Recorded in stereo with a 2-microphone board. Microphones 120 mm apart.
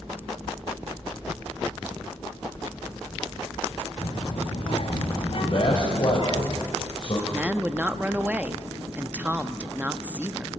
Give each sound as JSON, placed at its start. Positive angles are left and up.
{"t": 4.0, "sound": "a child speaking", "side_deg": 60, "distance_m": 4.5}
{"t": 5.4, "sound": "a man speaking", "side_deg": 50, "distance_m": 4.0}
{"t": 7.3, "sound": "a woman speaking", "side_deg": -15, "distance_m": 0.7}